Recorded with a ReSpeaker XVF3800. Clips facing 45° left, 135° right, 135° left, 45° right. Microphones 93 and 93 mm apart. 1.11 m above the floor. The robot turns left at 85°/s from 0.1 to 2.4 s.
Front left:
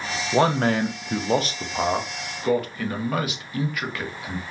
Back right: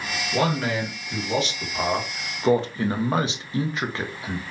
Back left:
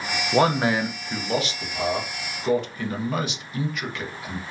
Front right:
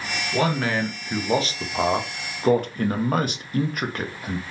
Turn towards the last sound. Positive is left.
turn(degrees=-75)